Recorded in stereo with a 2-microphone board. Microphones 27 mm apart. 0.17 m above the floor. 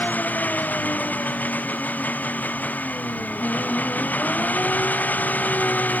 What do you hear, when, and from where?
0.0 s an engine running: 85° left